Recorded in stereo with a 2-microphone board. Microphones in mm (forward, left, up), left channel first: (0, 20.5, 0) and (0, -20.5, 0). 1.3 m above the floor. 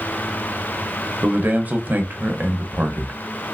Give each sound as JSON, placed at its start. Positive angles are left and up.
{"t": 1.2, "sound": "a man speaking", "side_deg": -45, "distance_m": 0.7}